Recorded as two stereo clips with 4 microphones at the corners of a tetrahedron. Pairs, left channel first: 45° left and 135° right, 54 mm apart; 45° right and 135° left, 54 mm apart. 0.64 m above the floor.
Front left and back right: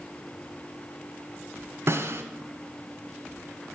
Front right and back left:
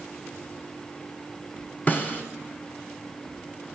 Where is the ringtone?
No ringtone in this recording.